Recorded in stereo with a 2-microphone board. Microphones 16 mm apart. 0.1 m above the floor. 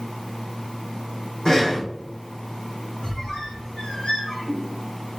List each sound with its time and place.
1.4 s breathing: 45° left (ahead or behind), 3.5 m
3.0 s a squeak: 55° left (ahead or behind), 3.5 m